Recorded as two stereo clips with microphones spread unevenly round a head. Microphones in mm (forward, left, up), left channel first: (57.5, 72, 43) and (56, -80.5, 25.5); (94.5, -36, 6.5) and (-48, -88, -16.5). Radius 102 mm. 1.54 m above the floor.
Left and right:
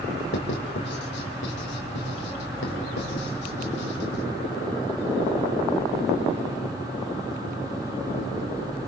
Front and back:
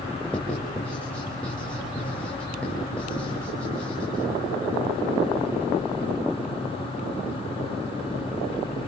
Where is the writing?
105° left, 5 m.